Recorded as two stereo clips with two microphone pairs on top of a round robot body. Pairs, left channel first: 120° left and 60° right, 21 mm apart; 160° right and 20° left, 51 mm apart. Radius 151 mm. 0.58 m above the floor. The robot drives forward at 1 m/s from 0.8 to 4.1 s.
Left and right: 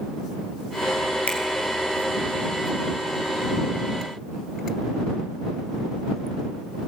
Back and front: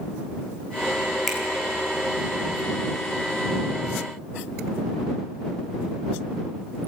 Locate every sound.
1.3 s a finger snap: 110° left, 3 m; by 1.4 s 115° left, 3 m